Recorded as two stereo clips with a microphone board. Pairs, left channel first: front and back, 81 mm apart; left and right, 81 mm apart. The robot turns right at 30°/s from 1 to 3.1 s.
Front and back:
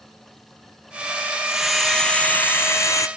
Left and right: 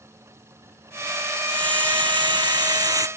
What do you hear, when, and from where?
1.5 s a hiss: 95° right; by 3.1 s 50° right